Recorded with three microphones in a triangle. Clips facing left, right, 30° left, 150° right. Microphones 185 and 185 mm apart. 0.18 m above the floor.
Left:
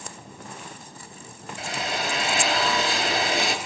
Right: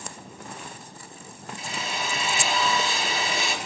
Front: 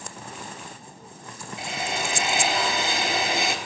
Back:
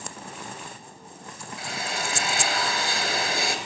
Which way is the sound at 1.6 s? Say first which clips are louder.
Left 4 dB, front 3 dB; 95° left.